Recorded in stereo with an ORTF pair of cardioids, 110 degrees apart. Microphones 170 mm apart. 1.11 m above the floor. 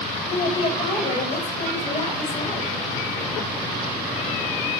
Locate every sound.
0.3 s a woman speaking: 35° left, 1.0 m